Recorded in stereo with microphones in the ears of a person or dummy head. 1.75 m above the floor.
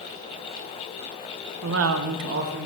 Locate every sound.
1.6 s a woman speaking: 60° right (ahead or behind), 0.8 m; by 2.7 s 50° right (ahead or behind), 1.3 m